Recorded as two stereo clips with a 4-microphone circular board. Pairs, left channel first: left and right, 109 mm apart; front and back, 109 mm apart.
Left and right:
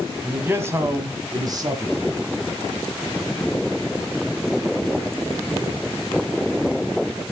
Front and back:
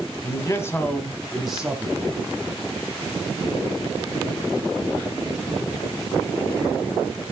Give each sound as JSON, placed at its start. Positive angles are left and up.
{"t": 0.2, "sound": "a man speaking", "azimuth_deg": -25, "distance_m": 1.7}